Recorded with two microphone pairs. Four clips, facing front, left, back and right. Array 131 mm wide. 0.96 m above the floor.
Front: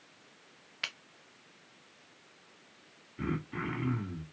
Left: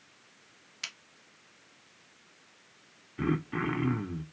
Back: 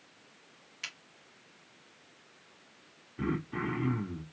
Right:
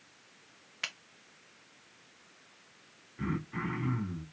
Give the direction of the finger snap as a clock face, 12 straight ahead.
2 o'clock.